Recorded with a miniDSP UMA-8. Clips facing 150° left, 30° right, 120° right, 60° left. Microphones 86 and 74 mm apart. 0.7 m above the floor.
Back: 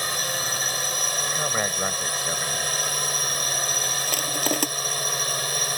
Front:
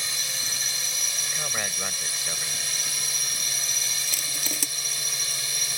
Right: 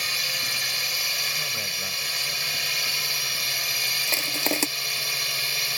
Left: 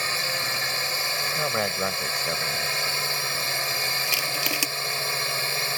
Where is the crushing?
Straight behind.